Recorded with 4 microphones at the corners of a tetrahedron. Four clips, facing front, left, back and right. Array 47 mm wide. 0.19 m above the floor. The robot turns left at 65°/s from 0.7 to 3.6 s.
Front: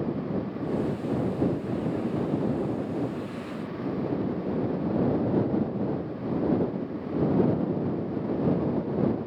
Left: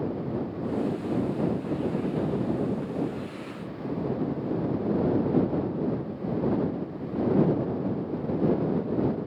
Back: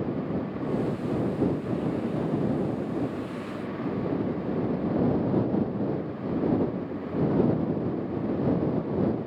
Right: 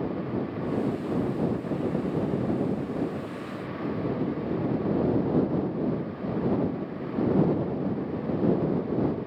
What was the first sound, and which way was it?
Only background noise.